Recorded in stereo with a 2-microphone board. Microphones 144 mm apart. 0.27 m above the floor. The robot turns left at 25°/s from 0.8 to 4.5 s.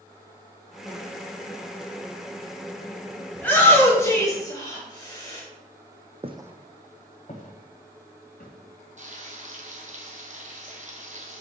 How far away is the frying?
About 1.6 m.